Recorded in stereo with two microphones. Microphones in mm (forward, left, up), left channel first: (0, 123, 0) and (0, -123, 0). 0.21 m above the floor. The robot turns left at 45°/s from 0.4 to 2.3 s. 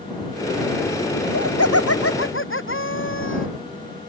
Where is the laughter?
105° left; by 3.5 s 55° left.